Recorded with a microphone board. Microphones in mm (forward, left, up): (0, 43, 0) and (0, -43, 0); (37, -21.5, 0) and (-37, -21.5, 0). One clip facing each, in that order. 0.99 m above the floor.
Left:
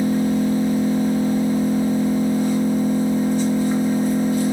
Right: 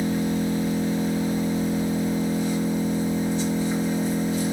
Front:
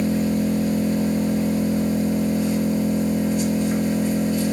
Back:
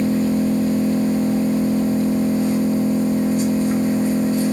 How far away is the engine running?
About 1.8 m.